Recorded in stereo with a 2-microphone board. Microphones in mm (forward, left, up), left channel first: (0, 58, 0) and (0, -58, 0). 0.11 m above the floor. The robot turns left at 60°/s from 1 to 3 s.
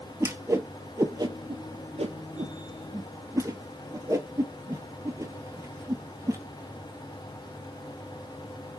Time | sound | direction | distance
0.2 | a whoosh | 25° right (ahead or behind) | 0.6 m